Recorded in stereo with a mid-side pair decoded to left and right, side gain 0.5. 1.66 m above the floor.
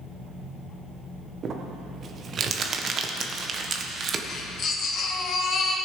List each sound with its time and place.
1.4 s crumpling: 50° right, 1.4 m
4.3 s a baby crying: 50° left, 2.5 m